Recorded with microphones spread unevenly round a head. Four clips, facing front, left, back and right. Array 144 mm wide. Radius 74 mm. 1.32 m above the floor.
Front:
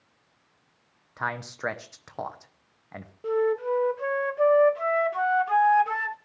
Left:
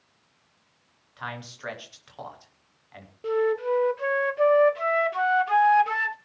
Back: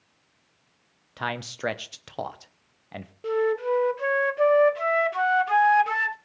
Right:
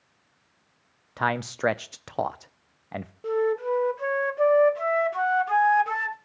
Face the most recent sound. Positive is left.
turn(degrees=-150)